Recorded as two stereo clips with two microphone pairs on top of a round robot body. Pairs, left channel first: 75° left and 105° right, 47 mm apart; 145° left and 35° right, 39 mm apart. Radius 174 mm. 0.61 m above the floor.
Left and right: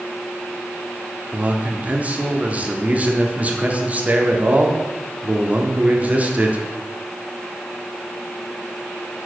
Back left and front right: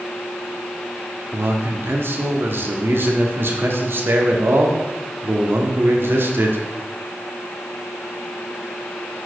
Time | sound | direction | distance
1.3 | a man speaking | 50° right | 1.9 m